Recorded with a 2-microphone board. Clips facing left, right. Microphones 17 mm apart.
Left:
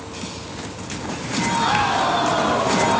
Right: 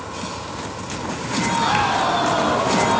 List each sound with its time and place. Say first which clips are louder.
0.0 s an insect: right 3 dB; 45° right (ahead or behind)